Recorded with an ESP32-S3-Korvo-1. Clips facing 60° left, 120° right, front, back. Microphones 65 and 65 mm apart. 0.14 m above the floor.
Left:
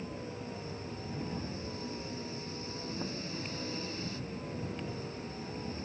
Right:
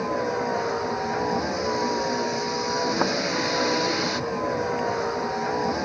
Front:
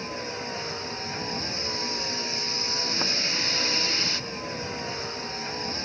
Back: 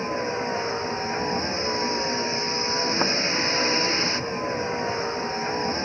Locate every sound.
0.0 s a vehicle: 120° right